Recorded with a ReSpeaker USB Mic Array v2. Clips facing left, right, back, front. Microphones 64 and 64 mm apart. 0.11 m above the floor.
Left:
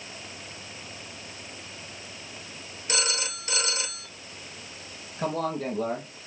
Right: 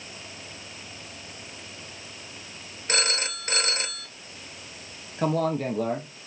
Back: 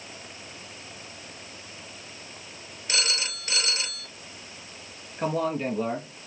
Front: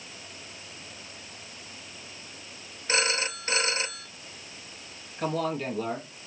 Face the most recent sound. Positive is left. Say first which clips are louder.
# right 4 dB, back 2 dB
turn(degrees=-110)